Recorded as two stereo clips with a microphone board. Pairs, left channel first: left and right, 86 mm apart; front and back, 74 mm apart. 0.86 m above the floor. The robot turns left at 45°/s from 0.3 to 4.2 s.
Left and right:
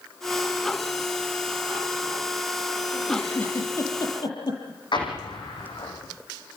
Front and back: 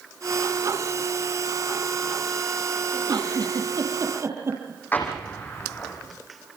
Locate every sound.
2.9 s a giggle: 175° right, 7 m; by 4.8 s 125° left, 7 m
4.9 s an explosion: 65° left, 6.5 m